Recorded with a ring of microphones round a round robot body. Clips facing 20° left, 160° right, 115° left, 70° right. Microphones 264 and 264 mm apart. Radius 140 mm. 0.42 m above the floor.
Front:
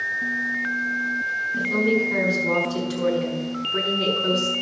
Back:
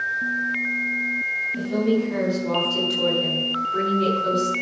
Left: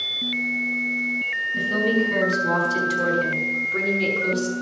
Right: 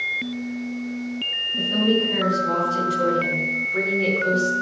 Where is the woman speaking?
90° left, 4.5 m; by 4.5 s 75° left, 6 m.